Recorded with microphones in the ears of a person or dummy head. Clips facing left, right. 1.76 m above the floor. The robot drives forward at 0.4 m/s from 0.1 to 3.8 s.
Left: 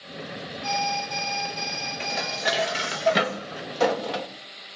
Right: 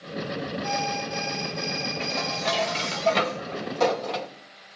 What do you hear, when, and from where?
0.6 s an alarm: 10° left (ahead or behind), 3 m
2.0 s dishes clattering: 15° left (ahead or behind), 1.4 m; by 4.3 s 10° left (ahead or behind), 2 m